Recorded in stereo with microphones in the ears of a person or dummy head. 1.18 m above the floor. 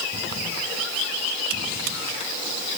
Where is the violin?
No violin in this recording.